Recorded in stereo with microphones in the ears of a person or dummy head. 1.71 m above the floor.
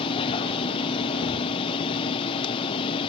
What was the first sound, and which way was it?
A machine running, 25° left (ahead or behind).